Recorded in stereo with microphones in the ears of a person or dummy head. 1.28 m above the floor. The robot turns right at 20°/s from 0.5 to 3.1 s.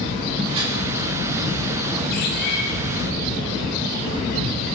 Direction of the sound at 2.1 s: 55° left (ahead or behind).